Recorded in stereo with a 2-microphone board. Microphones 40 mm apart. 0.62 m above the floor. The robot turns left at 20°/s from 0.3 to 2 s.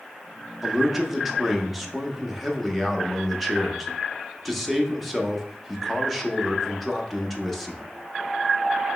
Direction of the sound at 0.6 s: 10° right (ahead or behind).